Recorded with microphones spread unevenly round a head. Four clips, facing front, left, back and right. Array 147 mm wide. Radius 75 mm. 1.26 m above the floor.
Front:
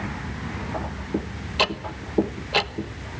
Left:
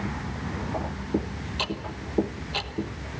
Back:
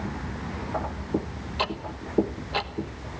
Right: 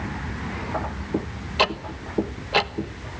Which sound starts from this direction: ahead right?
Ticking, at 1.6 s.